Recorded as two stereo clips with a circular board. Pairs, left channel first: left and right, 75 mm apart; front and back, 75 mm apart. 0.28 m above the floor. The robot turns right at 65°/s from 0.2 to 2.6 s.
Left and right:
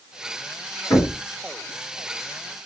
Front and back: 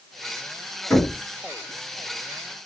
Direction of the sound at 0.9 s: 60° left.